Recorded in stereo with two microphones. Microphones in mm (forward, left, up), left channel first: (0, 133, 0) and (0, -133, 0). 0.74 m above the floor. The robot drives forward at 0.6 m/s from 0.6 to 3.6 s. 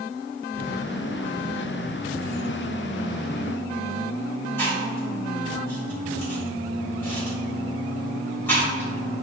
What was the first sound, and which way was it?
Chewing, 10° left (ahead or behind).